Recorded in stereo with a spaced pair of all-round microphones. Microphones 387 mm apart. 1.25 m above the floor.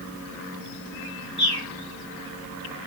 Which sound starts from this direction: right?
A bird, at 1.4 s.